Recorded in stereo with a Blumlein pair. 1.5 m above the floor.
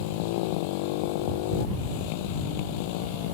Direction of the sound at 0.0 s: 45° left.